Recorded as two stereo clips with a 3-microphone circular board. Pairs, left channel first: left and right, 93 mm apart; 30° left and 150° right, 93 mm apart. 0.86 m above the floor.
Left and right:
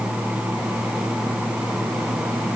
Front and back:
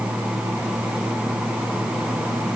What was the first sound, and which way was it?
Only background noise.